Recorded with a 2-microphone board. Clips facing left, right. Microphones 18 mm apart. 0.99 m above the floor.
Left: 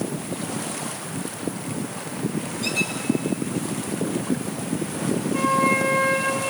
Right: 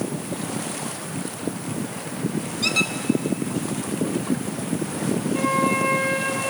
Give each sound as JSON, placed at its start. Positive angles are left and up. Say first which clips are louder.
{"t": 2.6, "sound": "a squeak", "louder": "right 4 dB", "side_deg": -40, "distance_m": 0.9}
{"t": 5.3, "sound": "a flute", "louder": "left 2 dB", "side_deg": -5, "distance_m": 8.5}